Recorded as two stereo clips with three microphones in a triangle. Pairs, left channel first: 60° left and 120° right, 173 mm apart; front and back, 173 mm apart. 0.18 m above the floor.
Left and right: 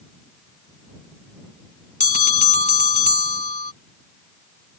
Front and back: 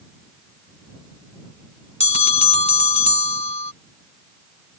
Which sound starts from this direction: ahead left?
A bell, at 2.0 s.